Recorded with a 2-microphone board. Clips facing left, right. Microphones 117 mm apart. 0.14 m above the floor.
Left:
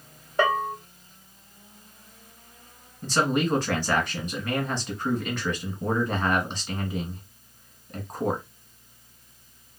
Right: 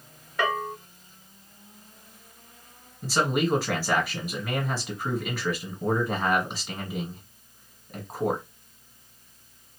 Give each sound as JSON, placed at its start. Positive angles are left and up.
{"t": 0.4, "sound": "a bell", "side_deg": 30, "distance_m": 1.0}
{"t": 3.0, "sound": "a man speaking", "side_deg": -5, "distance_m": 1.6}